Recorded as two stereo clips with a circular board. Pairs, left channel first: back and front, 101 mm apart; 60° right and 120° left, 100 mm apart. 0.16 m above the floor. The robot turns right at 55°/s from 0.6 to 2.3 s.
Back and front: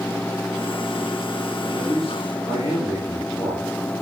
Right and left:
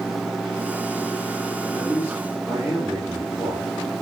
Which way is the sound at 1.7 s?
170° left.